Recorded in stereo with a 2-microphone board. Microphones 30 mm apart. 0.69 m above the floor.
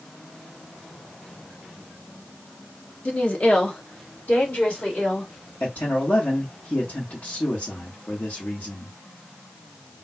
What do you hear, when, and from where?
3.0 s a woman speaking: 45° left (ahead or behind), 0.8 m; by 5.3 s 60° left (ahead or behind), 2.5 m
5.6 s a man speaking: 60° left (ahead or behind), 1.2 m